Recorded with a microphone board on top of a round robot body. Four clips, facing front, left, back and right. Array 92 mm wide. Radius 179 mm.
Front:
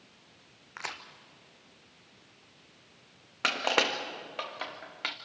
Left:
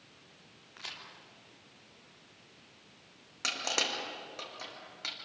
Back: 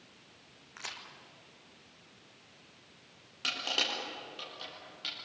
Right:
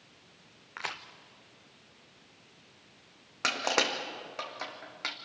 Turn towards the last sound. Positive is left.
turn(degrees=-35)